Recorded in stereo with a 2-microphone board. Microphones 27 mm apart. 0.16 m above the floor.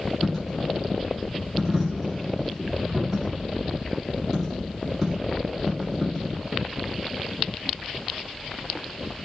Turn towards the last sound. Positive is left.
turn(degrees=-15)  # may be behind; listen again after turning